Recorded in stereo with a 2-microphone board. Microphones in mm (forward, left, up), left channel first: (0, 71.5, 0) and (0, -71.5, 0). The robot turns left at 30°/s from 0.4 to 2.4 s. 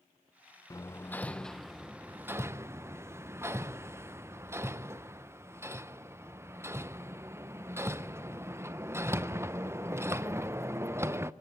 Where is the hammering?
25° left (ahead or behind), 0.6 m; by 11.3 s 20° right (ahead or behind), 0.6 m.